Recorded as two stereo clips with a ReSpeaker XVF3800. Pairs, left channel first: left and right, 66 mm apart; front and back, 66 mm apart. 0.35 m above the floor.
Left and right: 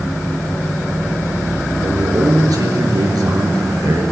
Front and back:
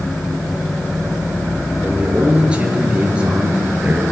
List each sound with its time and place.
1.8 s a man speaking: 105° right, 5.5 m